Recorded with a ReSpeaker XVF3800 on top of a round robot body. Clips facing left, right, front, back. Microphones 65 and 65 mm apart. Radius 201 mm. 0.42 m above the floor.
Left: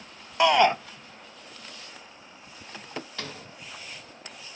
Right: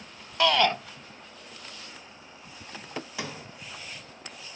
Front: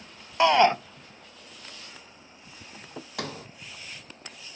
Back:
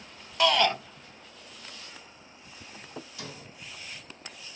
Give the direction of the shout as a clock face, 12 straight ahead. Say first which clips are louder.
Left 3 dB, front 5 dB; 11 o'clock.